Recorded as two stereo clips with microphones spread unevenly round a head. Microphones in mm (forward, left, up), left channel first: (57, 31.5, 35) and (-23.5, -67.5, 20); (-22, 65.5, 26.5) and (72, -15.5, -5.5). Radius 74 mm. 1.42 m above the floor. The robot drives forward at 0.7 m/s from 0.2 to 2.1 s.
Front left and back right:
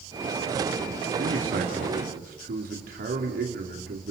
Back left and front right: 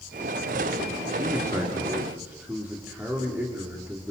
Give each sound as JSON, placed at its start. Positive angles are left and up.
{"t": 1.2, "sound": "a man speaking", "azimuth_deg": -115, "distance_m": 2.5}